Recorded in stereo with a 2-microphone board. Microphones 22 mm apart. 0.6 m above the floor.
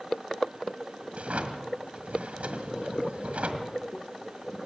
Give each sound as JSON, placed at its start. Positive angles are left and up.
{"t": 1.1, "sound": "a drawer", "side_deg": -80, "distance_m": 1.7}